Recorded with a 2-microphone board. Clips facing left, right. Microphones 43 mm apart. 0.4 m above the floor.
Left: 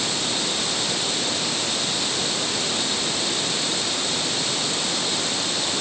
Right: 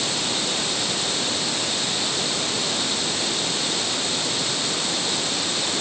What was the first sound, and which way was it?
Only background noise.